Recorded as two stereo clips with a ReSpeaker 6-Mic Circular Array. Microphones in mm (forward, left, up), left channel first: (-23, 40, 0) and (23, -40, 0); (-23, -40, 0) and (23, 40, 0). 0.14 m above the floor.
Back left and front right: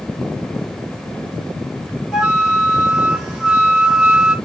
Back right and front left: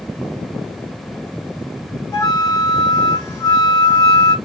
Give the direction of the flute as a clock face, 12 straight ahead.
5 o'clock.